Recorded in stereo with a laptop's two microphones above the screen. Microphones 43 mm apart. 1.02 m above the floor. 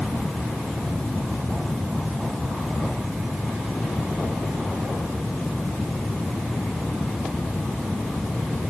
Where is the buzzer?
I don't hear a buzzer.